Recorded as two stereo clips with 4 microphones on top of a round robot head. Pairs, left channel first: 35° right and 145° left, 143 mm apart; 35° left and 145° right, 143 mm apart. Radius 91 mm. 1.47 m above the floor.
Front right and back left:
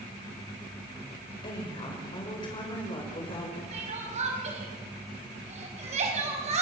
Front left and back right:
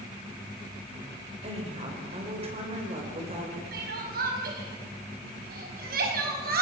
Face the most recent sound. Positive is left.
turn(degrees=-170)